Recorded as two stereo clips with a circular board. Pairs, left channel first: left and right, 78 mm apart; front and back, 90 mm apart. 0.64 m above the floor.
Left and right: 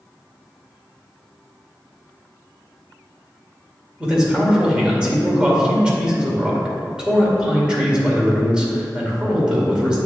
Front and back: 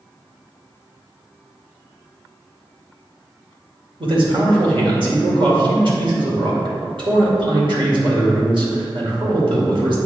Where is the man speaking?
165° right, 2 m.